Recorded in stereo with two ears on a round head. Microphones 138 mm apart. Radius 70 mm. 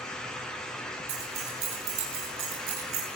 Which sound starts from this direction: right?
Keys jangling, at 1.1 s.